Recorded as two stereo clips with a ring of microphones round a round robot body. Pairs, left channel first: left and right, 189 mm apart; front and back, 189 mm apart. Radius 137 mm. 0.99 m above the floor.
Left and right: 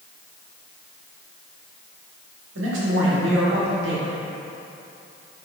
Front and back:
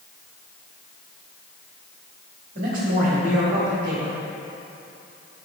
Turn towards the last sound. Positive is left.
turn(degrees=-125)